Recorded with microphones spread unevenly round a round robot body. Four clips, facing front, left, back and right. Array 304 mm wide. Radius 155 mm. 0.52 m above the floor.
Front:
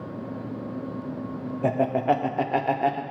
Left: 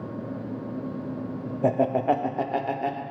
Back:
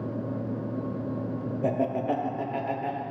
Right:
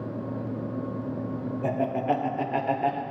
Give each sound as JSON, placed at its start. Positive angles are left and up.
{"t": 1.6, "sound": "laughter", "azimuth_deg": 75, "distance_m": 0.9}